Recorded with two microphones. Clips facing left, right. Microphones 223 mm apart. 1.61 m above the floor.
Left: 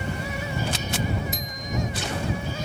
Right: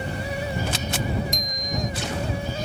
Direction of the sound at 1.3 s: 5° left (ahead or behind).